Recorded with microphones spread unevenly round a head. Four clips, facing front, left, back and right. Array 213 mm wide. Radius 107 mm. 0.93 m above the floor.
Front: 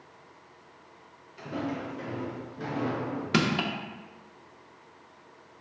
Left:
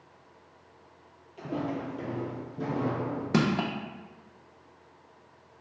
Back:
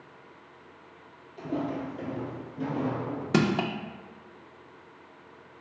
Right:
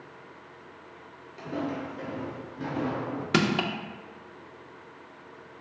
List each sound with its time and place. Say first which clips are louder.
1.4 s footsteps: even, back 2 dB; 135° left, 1.6 m; by 3.2 s 85° left, 1.6 m
3.3 s crushing: right 1 dB, back 2 dB; 160° right, 0.6 m